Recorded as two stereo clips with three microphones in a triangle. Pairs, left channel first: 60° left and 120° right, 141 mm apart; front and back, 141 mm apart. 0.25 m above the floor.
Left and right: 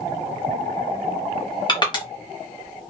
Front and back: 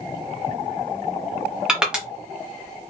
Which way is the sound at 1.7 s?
100° left.